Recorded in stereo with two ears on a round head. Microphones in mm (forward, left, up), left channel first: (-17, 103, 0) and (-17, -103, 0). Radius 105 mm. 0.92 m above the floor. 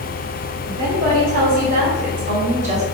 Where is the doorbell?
I don't hear a doorbell.